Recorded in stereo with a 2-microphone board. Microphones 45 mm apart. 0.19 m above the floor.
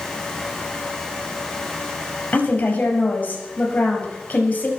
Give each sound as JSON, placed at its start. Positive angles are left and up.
{"t": 2.3, "sound": "a woman speaking", "side_deg": 35, "distance_m": 5.0}